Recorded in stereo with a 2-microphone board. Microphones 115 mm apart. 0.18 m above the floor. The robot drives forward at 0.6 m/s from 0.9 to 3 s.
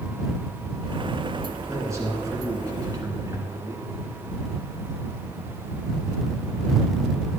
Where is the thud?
No thud in this recording.